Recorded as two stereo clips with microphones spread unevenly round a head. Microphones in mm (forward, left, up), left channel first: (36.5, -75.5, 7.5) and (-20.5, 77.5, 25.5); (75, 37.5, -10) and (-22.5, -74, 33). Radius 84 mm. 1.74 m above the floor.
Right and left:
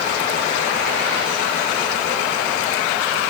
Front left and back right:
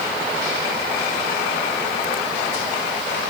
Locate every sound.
Only background noise.